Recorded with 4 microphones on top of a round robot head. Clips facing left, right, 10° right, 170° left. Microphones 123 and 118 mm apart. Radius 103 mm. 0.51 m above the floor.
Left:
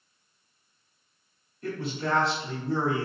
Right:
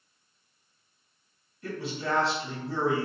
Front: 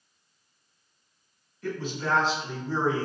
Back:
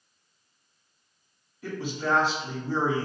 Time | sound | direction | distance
1.6 | a man speaking | 95° left | 1.8 m